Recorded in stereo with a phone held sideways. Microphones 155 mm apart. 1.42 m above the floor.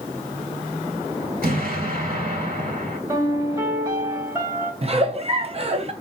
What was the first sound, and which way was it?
An explosion, 70° right (ahead or behind).